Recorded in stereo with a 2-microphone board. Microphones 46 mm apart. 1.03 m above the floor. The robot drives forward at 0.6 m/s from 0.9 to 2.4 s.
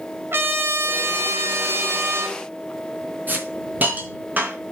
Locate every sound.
0.3 s a trumpet: 55° right (ahead or behind), 1.6 m; by 2.4 s 60° right (ahead or behind), 1.5 m
3.3 s a hiss: 40° right (ahead or behind), 3 m